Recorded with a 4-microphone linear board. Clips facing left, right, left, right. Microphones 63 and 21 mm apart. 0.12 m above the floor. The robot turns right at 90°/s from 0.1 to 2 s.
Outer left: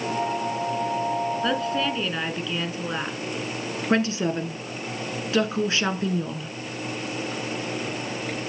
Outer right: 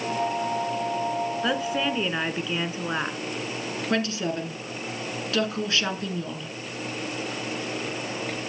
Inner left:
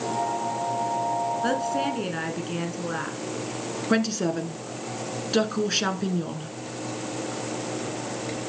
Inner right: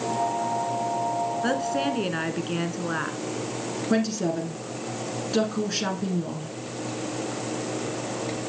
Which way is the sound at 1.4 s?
5° right (ahead or behind).